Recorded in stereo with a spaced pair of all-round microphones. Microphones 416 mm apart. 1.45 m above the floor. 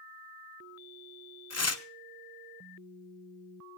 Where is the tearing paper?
40° left (ahead or behind), 0.7 m.